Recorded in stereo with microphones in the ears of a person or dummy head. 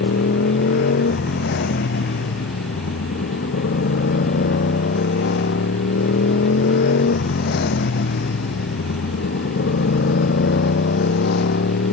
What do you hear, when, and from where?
0.0 s a motorcycle: 60° left (ahead or behind); by 11.9 s 65° left (ahead or behind)